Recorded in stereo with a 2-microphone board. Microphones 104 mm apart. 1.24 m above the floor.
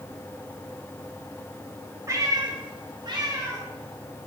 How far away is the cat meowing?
About 1.2 m.